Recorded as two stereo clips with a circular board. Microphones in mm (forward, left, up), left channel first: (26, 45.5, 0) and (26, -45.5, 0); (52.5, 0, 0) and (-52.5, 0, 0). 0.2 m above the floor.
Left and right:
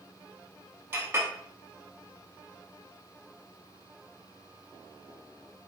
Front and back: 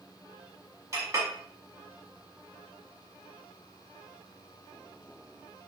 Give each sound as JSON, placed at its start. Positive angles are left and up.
{"t": 0.9, "sound": "a clink", "azimuth_deg": -135, "distance_m": 0.7}